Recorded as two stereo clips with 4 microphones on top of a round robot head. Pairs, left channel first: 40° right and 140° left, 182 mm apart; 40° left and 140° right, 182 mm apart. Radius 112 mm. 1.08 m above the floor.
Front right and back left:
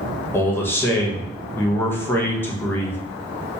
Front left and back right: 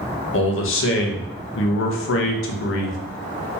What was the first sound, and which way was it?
A man speaking, 35° left.